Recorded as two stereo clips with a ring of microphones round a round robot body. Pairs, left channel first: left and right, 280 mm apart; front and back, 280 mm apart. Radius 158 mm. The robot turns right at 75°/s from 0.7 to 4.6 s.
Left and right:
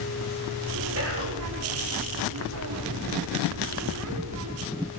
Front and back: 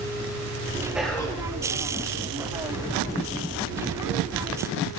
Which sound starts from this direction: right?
Whispering, at 0.9 s.